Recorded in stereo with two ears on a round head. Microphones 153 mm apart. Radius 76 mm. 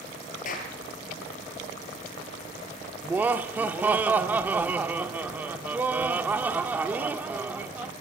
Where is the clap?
50° left (ahead or behind), 7 m.